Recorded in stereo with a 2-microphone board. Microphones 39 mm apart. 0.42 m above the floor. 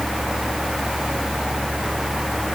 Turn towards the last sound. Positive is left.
No sound to turn to.